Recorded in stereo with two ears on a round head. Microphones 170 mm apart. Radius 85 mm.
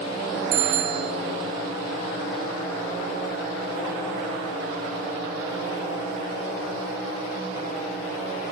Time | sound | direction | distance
0.5 | a bicycle bell | 50° right (ahead or behind) | 4 m